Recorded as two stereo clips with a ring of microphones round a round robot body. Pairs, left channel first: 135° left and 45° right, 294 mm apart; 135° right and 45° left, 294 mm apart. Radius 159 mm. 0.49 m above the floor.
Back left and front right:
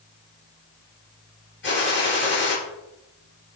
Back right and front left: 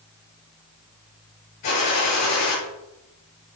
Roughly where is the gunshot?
Behind.